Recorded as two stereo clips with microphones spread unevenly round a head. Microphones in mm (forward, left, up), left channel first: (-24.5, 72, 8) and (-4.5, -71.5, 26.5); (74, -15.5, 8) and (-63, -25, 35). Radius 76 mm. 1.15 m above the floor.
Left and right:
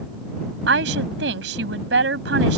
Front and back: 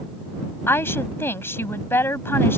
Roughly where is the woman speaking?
Right.